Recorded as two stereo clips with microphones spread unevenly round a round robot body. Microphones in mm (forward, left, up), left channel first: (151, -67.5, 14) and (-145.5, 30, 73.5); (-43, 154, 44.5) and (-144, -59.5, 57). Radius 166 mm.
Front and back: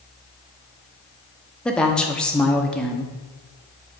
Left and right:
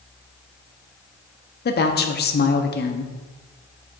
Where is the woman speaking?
55° left, 0.8 m.